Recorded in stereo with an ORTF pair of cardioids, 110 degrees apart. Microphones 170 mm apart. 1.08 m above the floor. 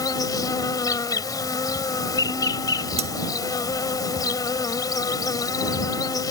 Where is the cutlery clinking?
35° right.